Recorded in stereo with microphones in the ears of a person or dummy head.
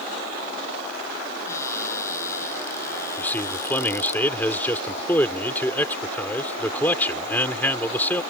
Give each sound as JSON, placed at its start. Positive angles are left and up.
{"t": 1.5, "sound": "a cupboard door", "side_deg": 25}
{"t": 3.2, "sound": "a man speaking", "side_deg": 20}